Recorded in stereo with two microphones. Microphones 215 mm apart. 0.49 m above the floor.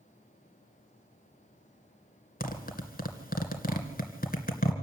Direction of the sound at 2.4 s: 45° left (ahead or behind).